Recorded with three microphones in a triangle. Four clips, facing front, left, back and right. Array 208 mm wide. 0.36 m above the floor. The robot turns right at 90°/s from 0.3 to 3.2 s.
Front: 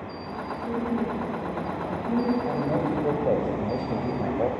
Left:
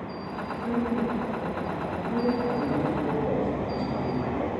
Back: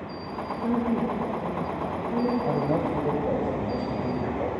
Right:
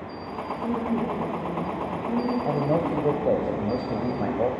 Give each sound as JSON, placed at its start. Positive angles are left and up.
{"t": 0.6, "sound": "a woman speaking", "azimuth_deg": -170, "distance_m": 5.0}
{"t": 2.5, "sound": "a man speaking", "azimuth_deg": -125, "distance_m": 2.0}